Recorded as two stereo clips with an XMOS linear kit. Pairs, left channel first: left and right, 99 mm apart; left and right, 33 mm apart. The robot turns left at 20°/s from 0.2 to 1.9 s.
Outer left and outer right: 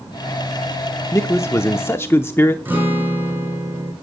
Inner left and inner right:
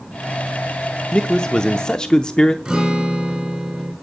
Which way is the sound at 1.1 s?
30° left (ahead or behind).